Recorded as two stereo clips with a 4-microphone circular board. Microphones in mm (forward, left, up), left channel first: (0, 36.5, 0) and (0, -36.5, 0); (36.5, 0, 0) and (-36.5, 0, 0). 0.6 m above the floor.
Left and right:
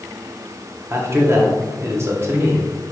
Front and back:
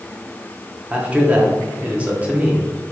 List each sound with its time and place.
0.9 s a man speaking: 120° right, 1.0 m